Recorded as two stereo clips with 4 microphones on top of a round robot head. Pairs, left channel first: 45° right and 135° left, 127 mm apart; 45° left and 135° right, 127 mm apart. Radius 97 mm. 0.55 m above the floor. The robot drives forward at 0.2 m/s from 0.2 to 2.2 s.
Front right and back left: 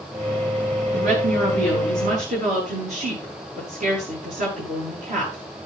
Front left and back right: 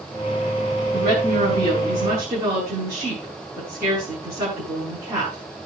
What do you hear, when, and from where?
0.9 s a woman speaking: 155° left, 8.5 m